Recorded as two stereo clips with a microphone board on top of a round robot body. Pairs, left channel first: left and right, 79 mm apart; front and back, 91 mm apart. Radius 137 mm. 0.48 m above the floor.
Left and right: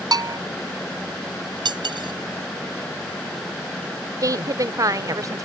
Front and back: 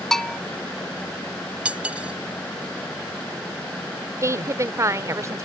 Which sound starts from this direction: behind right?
A woman speaking, at 4.2 s.